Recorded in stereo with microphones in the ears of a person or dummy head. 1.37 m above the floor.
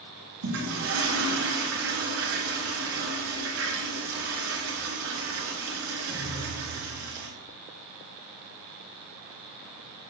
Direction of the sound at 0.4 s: 70° right (ahead or behind).